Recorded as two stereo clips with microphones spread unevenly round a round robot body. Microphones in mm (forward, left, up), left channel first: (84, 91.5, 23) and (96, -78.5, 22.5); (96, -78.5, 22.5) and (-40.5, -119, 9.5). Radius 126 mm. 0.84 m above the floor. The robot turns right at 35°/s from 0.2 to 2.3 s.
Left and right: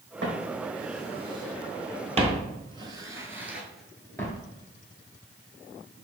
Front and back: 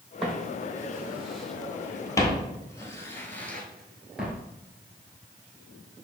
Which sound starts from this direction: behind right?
Footsteps, at 0.2 s.